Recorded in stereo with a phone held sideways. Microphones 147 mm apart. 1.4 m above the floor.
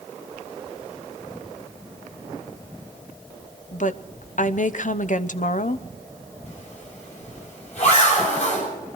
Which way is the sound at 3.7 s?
60° left (ahead or behind).